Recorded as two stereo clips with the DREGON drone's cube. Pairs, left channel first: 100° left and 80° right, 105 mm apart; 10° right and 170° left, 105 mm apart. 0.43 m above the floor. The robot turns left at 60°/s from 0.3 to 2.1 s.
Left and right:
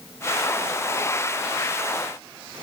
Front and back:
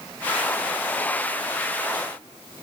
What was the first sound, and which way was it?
Only background noise.